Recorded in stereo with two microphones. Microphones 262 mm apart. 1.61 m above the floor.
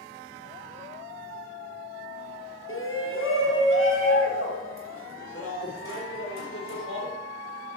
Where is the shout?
50° left (ahead or behind), 1.1 m.